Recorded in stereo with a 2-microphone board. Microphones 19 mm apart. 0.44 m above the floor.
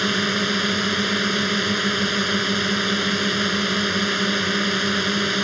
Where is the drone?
Centre (ahead or behind).